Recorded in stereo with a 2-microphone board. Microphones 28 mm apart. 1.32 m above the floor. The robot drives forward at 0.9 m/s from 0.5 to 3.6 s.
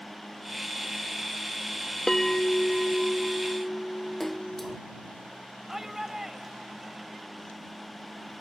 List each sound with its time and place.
2.1 s a bell: 20° left (ahead or behind); by 4.8 s 10° left (ahead or behind)
4.2 s a splash: 5° left (ahead or behind)
5.7 s a shout: 15° right (ahead or behind)